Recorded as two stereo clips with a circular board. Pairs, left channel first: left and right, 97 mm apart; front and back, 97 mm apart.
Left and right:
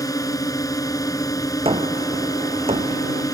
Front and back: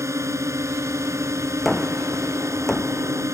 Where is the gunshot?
90° right.